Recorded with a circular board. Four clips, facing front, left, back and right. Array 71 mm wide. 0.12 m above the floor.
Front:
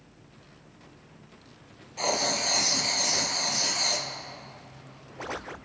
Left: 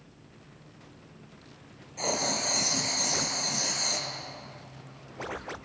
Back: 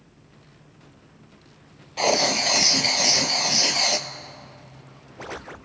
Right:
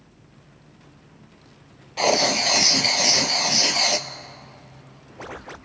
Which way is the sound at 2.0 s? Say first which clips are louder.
Right 10 dB, back 7 dB; 125° right.